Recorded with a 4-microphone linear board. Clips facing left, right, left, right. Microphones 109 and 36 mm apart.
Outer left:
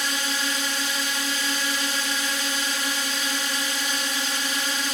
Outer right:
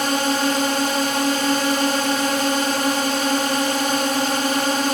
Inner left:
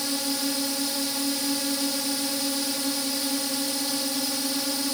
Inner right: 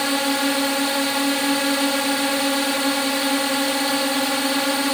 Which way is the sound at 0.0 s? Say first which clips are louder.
Outer right 10 dB, inner right 8 dB; 55° right (ahead or behind).